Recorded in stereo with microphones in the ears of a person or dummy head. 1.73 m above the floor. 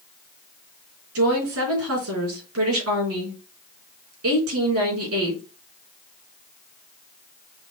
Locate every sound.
1.1 s a woman speaking: 85° right, 4.5 m